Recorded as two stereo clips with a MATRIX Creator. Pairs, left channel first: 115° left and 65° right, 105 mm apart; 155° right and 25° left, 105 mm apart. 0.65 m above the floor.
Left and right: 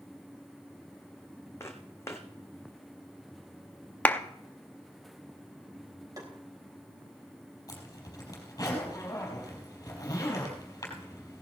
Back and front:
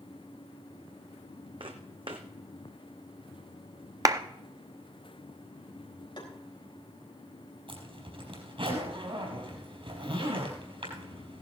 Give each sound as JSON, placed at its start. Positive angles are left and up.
{"t": 1.6, "sound": "footsteps", "azimuth_deg": 50, "distance_m": 1.6}
{"t": 4.0, "sound": "a clap", "azimuth_deg": 50, "distance_m": 0.7}
{"t": 6.2, "sound": "tapping", "azimuth_deg": -120, "distance_m": 3.5}
{"t": 7.7, "sound": "a zipper", "azimuth_deg": 55, "distance_m": 4.0}